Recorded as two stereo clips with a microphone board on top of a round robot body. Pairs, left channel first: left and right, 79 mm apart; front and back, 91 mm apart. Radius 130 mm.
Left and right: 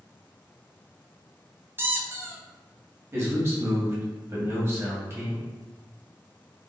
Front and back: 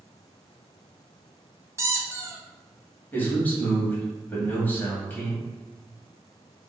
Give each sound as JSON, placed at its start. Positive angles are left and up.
{"t": 1.8, "sound": "a squeak", "azimuth_deg": -140, "distance_m": 0.7}
{"t": 3.1, "sound": "a man speaking", "azimuth_deg": -55, "distance_m": 1.5}